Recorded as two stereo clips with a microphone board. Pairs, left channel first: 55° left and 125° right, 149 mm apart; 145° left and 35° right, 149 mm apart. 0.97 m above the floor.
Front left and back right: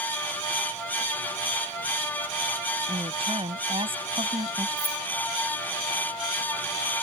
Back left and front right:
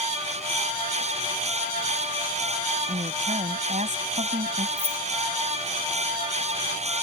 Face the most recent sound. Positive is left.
turn(degrees=-110)